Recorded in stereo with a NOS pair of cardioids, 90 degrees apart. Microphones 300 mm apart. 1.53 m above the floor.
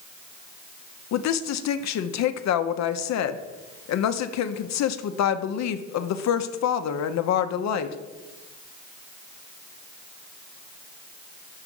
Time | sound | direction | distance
1.1 | a woman speaking | 60° left | 0.6 m